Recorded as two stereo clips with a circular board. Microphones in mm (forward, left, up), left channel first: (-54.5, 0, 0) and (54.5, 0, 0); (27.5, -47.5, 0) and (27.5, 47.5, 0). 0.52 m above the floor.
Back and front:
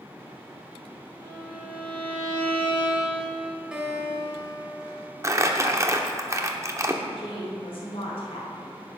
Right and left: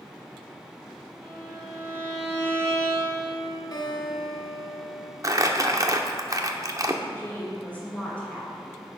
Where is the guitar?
80° right, 1.4 m.